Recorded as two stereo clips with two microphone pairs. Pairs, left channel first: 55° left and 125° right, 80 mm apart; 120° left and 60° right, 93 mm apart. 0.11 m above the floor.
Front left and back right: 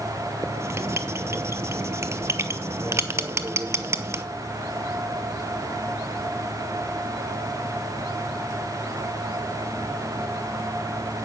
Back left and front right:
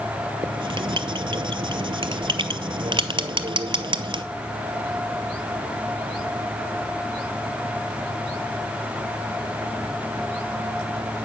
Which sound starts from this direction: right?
Writing, at 0.4 s.